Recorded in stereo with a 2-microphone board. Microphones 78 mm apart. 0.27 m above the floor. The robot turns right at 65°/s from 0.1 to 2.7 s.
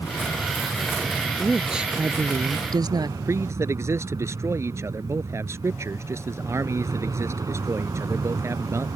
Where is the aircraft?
80° left; by 9.0 s 110° right.